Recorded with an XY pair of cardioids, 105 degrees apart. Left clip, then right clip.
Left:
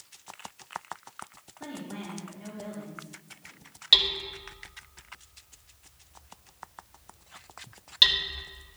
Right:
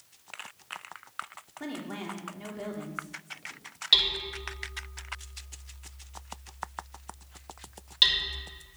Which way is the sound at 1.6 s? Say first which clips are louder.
Right 2 dB; 50° right.